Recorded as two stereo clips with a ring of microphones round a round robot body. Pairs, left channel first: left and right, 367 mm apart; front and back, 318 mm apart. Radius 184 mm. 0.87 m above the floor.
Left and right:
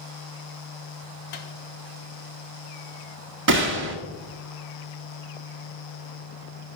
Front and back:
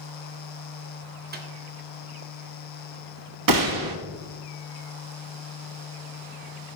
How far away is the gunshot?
About 1.4 m.